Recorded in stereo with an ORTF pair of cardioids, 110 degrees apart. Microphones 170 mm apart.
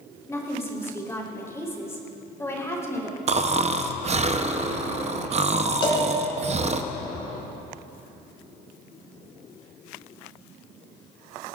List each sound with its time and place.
0.3 s a woman speaking: 15° left, 3.5 m
3.3 s snoring: 40° right, 0.8 m
5.8 s a cowbell: 30° left, 4.5 m